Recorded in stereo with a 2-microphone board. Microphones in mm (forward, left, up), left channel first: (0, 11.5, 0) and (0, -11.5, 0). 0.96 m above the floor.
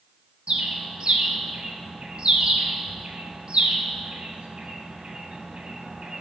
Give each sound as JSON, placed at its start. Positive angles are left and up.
{"t": 0.5, "sound": "a bird", "side_deg": -55, "distance_m": 1.6}